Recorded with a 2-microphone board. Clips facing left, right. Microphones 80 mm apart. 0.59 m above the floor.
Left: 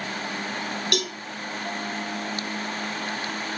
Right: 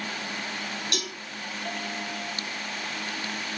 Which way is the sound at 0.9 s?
65° left (ahead or behind).